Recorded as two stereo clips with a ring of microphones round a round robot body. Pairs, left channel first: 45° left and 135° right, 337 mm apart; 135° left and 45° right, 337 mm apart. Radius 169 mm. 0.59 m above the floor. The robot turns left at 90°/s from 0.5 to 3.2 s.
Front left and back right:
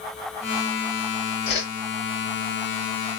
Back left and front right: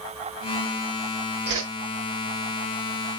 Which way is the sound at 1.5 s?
15° left.